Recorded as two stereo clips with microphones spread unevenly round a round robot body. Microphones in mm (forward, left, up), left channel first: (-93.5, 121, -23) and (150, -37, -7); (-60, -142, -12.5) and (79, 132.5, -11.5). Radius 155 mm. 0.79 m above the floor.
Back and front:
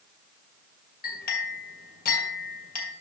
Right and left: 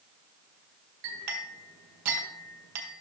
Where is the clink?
90° left, 2 m.